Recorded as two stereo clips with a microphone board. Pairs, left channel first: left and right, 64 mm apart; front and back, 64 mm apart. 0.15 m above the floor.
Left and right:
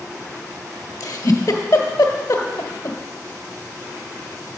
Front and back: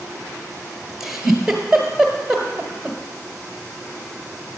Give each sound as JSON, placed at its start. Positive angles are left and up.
{"t": 1.0, "sound": "a giggle", "azimuth_deg": 95, "distance_m": 1.4}